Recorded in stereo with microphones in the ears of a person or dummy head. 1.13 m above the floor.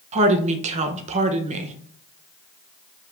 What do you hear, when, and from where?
0.1 s a woman speaking: 35° right (ahead or behind), 1.0 m